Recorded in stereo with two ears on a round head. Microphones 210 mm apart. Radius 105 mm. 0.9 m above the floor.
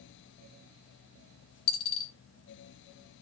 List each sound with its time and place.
1.7 s a dropped coin: 65° left (ahead or behind), 1.4 m